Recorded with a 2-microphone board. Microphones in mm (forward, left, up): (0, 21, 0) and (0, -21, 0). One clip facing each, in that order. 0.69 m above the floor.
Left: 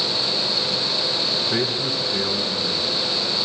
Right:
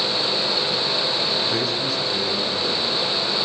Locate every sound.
1.3 s a man speaking: 20° left (ahead or behind), 6.5 m